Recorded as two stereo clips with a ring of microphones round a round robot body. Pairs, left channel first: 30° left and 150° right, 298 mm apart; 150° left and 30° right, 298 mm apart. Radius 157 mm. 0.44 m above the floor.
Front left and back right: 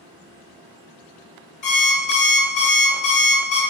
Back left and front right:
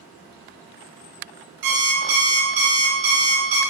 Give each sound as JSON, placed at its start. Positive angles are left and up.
{"t": 1.6, "sound": "an alarm clock", "azimuth_deg": -40, "distance_m": 1.0}